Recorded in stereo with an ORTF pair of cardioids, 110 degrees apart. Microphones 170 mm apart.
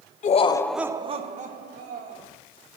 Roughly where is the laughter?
Ahead left.